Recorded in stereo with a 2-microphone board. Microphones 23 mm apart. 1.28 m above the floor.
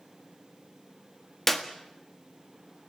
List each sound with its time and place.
1.5 s a clap: 10° left (ahead or behind), 1.6 m